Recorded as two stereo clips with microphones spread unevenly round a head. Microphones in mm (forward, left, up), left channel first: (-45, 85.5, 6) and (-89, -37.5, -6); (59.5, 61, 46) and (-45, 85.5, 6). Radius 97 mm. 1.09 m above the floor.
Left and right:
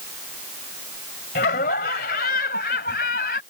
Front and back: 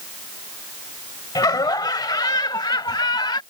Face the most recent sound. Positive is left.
turn(degrees=30)